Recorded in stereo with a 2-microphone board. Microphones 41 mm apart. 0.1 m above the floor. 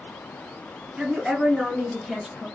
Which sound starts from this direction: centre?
A woman speaking, at 1.0 s.